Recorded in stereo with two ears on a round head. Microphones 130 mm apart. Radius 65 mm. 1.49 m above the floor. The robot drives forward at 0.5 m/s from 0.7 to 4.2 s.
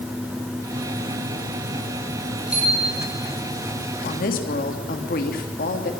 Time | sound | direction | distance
2.5 | a bicycle bell | 10° right (ahead or behind) | 8 m
4.0 | a woman speaking | 65° left (ahead or behind) | 2.5 m